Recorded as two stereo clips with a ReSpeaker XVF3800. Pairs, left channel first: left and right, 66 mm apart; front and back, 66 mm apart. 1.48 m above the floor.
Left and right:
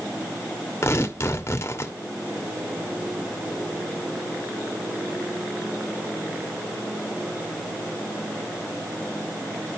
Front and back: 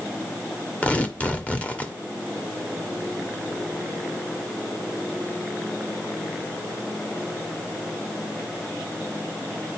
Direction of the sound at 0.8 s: 60° left.